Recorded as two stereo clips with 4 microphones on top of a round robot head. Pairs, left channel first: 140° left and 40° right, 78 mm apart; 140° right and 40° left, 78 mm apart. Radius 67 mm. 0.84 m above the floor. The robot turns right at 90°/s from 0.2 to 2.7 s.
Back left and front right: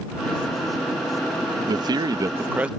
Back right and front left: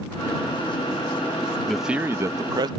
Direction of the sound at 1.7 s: 55° right.